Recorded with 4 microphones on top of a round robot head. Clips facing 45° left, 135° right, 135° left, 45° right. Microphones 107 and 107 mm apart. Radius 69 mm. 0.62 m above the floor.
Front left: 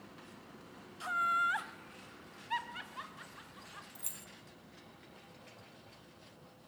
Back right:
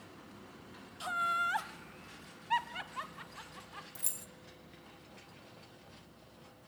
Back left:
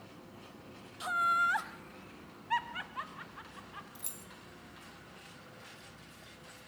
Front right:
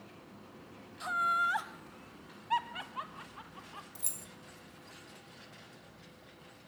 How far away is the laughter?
About 0.9 m.